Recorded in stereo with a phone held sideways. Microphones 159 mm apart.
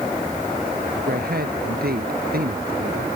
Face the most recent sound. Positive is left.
turn(degrees=-70)  # may be behind; listen again after turning